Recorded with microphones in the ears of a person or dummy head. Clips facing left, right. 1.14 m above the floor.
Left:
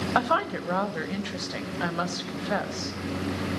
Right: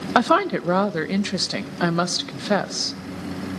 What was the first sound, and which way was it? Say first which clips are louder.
A woman speaking: right 9 dB; 60° right (ahead or behind).